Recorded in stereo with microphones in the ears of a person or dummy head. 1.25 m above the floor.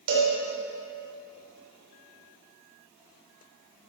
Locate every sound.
0.1 s a cowbell: 75° right (ahead or behind), 3.5 m